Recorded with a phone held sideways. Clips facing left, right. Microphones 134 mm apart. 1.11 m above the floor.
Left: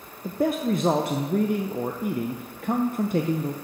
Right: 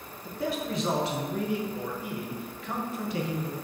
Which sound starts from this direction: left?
A man speaking, at 0.2 s.